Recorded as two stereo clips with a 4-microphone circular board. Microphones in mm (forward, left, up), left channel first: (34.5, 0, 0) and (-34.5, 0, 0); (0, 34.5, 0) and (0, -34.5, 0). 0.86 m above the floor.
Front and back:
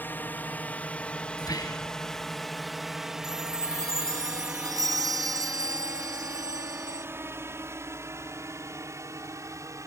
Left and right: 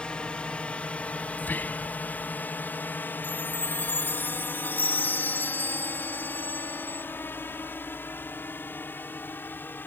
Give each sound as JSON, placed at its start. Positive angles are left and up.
{"t": 0.0, "sound": "a drone", "azimuth_deg": 30}
{"t": 1.4, "sound": "whispering", "azimuth_deg": 25}
{"t": 3.2, "sound": "a chime", "azimuth_deg": 150}